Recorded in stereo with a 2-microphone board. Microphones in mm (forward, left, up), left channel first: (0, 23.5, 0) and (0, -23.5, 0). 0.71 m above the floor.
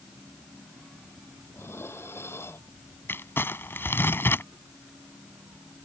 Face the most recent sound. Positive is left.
turn(degrees=55)  # may be behind; listen again after turning